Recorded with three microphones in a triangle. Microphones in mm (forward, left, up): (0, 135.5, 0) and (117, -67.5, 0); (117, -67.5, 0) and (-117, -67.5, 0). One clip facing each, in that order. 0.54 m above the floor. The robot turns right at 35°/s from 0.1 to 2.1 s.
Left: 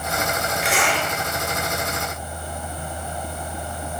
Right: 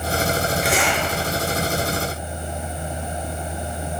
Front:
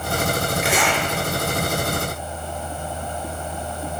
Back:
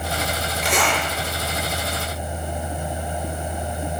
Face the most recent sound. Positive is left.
turn(degrees=-30)